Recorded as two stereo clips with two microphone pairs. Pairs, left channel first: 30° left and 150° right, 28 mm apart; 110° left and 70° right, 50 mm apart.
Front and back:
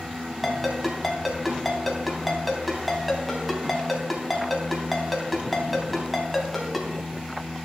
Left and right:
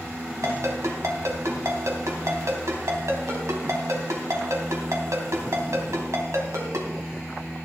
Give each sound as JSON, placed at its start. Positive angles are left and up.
{"t": 0.4, "sound": "a ringtone", "azimuth_deg": -60, "distance_m": 3.5}